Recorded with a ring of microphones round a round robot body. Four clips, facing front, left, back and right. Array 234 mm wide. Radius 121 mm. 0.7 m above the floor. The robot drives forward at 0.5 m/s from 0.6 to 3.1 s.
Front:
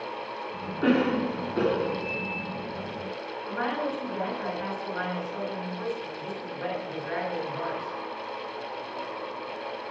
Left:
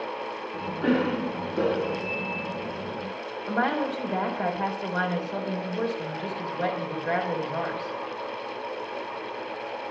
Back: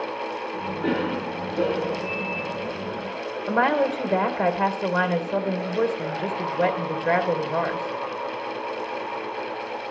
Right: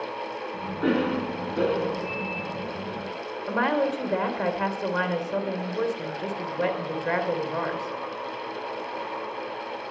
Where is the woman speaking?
165° right, 3 m.